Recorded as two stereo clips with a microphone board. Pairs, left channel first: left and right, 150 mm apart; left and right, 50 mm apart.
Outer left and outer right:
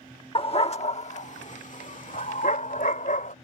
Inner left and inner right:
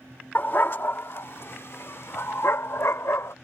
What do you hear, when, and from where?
0.3 s a dog barking: 35° left (ahead or behind); by 3.3 s 60° left (ahead or behind)